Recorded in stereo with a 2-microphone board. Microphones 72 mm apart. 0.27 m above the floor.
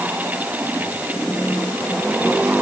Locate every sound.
Only background noise.